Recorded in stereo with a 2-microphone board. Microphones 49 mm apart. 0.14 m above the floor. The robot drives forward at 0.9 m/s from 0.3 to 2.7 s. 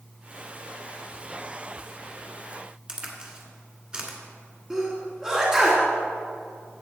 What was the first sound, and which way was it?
A crack, 20° right (ahead or behind).